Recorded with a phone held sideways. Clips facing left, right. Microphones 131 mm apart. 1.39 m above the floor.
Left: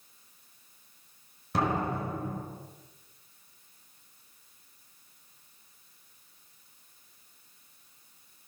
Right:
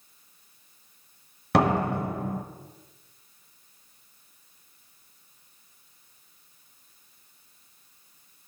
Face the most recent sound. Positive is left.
turn(degrees=-80)